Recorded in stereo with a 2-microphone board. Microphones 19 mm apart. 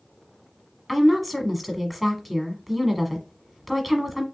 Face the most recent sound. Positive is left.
turn(degrees=0)  # may be behind; listen again after turning